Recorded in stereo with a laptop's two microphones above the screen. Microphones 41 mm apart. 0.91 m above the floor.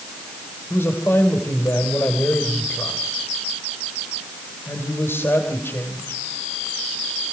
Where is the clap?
No clap in this recording.